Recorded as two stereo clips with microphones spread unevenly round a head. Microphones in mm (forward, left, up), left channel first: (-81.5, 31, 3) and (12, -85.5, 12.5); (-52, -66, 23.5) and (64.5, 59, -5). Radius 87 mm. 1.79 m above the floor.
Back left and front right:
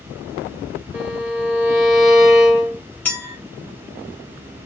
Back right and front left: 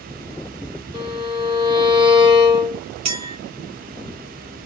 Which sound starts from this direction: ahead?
A violin, at 0.9 s.